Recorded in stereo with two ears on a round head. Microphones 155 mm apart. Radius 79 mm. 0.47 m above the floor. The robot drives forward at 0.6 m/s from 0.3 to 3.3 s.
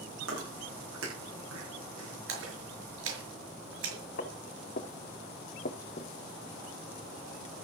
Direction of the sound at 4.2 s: 50° left (ahead or behind).